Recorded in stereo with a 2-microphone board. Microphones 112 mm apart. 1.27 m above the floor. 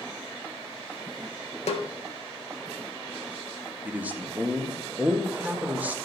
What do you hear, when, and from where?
1.7 s a snare drum: 75° left (ahead or behind), 1.6 m
3.9 s a man speaking: 15° right (ahead or behind), 1.5 m